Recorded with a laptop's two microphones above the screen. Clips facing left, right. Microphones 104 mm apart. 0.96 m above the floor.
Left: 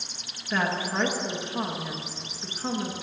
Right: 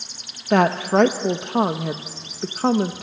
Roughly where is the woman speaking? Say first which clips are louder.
Right 11 dB; right.